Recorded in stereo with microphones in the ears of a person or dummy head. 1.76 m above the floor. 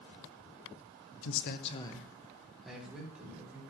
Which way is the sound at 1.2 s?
85° left.